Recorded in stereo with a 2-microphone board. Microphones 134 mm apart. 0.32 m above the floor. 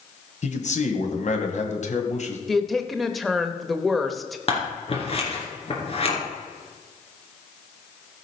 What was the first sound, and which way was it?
A man speaking, 60° left (ahead or behind).